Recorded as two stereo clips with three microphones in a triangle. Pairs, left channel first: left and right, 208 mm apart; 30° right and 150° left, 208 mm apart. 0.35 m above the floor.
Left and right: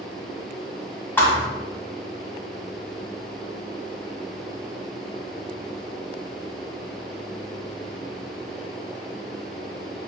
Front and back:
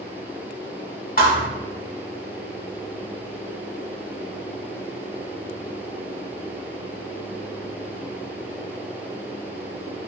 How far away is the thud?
About 0.9 m.